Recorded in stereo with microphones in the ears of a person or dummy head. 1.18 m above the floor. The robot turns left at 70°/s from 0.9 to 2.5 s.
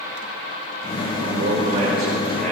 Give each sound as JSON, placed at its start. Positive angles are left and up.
{"t": 1.2, "sound": "a man speaking", "azimuth_deg": -90, "distance_m": 5.5}